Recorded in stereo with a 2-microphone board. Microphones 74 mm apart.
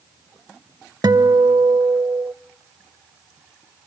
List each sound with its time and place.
1.0 s a guitar: 65° right (ahead or behind), 0.6 m